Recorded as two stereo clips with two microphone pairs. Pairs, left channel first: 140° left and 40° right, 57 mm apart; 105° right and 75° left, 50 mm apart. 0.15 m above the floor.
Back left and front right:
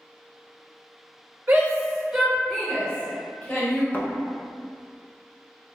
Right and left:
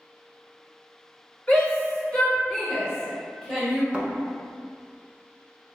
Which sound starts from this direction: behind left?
A thud, at 3.9 s.